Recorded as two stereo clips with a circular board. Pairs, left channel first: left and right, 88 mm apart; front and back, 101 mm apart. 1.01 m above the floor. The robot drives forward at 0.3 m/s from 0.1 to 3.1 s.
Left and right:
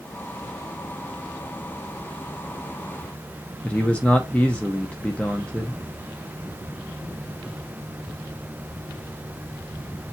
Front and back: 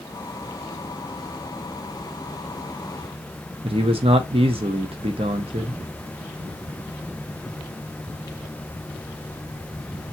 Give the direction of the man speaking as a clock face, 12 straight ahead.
6 o'clock.